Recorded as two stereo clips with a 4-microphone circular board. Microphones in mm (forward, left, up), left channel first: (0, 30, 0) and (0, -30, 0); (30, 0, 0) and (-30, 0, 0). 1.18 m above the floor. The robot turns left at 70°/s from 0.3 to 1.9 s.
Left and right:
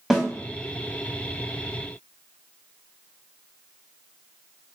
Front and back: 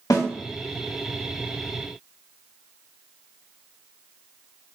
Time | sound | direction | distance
0.1 | a snare drum | 10° right | 1.3 m